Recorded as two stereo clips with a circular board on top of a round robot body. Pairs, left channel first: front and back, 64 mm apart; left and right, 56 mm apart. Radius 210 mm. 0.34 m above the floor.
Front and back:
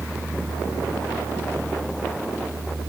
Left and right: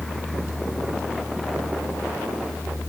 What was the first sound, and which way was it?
Only background noise.